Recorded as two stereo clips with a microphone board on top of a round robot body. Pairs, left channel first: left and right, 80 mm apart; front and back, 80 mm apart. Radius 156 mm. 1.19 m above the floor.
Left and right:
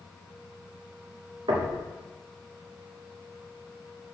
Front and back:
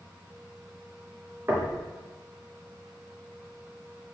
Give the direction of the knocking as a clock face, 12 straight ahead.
4 o'clock.